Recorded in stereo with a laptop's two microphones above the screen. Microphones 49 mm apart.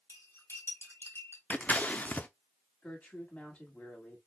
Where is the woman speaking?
30° left (ahead or behind), 2 m.